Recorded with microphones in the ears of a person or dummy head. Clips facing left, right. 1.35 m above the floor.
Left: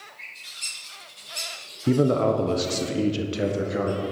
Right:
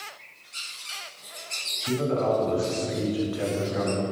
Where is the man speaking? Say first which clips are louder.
Left 4 dB; 60° left (ahead or behind), 0.8 m; by 4.0 s 20° left (ahead or behind), 1.5 m.